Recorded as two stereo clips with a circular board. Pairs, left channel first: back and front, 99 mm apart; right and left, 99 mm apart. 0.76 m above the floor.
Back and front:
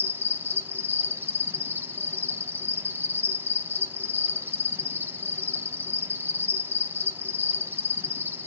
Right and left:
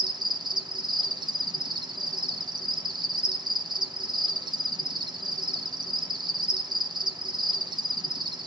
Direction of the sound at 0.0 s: 65° left.